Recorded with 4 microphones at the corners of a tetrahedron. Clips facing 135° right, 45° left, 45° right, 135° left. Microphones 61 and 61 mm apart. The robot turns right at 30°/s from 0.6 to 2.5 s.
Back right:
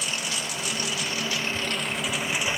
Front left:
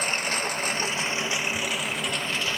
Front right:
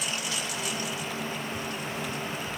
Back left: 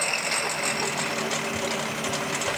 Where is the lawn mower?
95° left; by 2.6 s 150° left.